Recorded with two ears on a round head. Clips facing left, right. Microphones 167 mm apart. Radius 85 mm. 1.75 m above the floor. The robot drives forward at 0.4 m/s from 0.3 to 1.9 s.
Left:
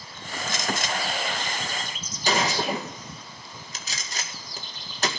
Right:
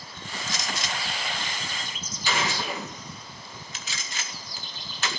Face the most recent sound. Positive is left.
turn(degrees=35)  # may be behind; listen again after turning